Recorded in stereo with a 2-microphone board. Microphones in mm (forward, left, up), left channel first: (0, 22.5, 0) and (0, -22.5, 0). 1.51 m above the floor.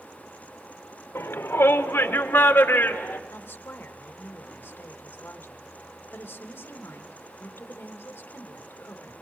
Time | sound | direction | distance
1.1 | a shout | 70° left (ahead or behind) | 1.4 m
3.3 | a woman speaking | 55° left (ahead or behind) | 3 m